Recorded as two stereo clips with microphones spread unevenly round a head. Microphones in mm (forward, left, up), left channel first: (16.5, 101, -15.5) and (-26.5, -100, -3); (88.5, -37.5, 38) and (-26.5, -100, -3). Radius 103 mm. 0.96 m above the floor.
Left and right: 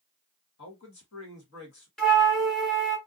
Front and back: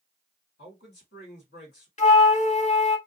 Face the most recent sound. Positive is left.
turn(degrees=-5)